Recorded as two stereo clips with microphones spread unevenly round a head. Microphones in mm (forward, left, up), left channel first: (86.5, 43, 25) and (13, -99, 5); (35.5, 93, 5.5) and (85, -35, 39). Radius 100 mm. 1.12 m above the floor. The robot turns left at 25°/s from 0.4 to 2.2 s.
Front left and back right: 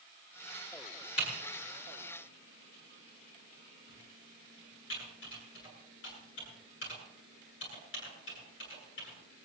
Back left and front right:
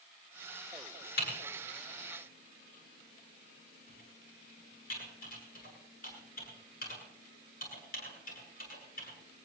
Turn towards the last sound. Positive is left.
turn(degrees=100)